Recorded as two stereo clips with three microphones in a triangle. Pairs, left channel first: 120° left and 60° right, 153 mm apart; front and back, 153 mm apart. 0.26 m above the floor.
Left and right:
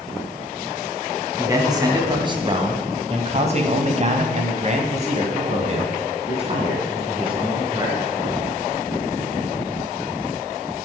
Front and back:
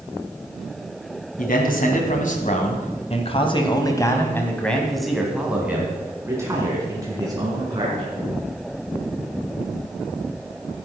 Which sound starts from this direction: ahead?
A man speaking, at 1.4 s.